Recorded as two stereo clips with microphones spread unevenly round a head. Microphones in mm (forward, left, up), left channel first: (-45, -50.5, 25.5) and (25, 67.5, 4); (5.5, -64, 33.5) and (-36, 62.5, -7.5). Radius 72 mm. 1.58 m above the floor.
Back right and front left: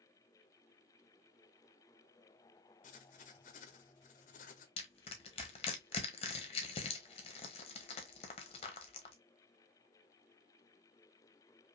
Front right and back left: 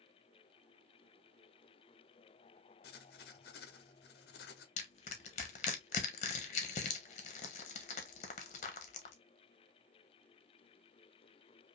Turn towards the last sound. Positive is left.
turn(degrees=-80)